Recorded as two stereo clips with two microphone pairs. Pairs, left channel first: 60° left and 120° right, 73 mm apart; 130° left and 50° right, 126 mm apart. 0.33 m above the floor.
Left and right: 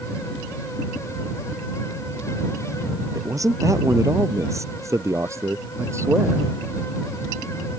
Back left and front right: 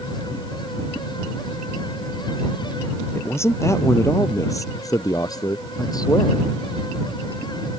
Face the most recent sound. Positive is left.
turn(degrees=-170)